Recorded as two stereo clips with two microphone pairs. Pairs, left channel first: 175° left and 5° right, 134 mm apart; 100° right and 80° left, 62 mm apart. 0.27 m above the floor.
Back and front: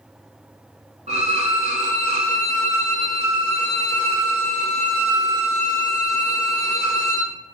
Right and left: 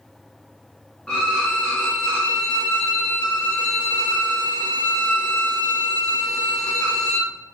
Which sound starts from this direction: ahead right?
A violin, at 1.1 s.